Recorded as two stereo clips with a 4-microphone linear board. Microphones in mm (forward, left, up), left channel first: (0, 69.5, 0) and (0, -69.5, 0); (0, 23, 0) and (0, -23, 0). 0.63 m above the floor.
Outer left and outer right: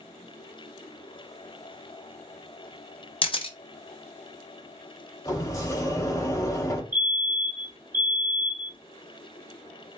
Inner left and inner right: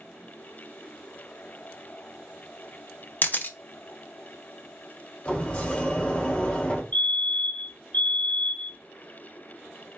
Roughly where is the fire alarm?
Left.